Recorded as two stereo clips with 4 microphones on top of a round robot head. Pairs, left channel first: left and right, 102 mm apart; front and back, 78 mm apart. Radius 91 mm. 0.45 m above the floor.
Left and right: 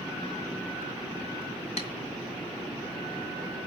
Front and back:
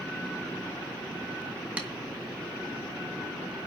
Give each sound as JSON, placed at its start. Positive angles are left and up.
{"t": 1.8, "sound": "tapping", "azimuth_deg": 105, "distance_m": 4.0}